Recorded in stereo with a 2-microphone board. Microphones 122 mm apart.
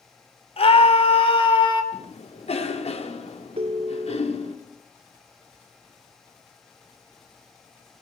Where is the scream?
55° left (ahead or behind), 5 m; by 1.8 s 45° left (ahead or behind), 4 m.